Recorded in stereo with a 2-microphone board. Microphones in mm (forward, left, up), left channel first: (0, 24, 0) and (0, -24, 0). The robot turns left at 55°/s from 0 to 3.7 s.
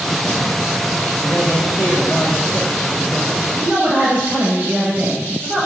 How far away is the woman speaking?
About 2.5 m.